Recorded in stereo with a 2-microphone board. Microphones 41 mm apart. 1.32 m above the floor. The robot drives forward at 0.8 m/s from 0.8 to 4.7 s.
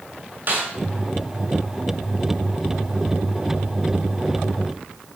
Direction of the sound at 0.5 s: 45° right (ahead or behind).